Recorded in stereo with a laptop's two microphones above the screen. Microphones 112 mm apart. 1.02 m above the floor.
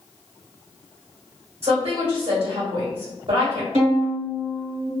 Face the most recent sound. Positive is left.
turn(degrees=-65)  # may be behind; listen again after turning